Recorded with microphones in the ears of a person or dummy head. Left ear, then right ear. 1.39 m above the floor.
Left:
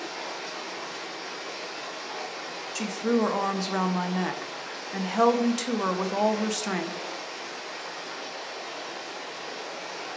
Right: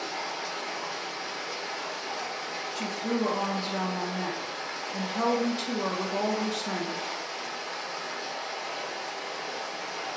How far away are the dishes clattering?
I don't hear dishes clattering.